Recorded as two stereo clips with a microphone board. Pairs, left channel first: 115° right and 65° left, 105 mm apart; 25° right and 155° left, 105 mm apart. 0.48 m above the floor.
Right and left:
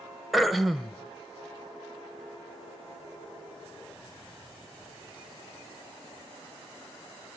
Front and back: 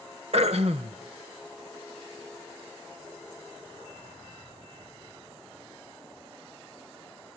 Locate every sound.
0.3 s throat clearing: 155° left, 0.9 m